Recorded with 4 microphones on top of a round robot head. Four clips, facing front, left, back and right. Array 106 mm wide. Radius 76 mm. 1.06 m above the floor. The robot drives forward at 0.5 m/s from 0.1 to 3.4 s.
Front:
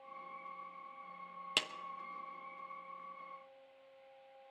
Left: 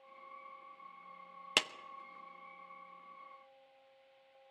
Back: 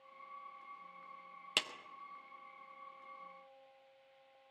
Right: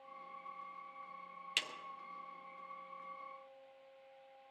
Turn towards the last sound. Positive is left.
turn(degrees=135)